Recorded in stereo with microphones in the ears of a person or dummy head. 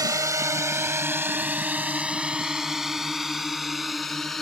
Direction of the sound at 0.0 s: 20° right (ahead or behind).